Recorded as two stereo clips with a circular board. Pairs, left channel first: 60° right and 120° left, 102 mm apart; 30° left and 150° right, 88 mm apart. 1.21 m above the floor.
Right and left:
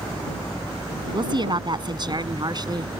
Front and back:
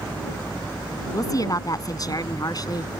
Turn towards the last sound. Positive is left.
turn(degrees=70)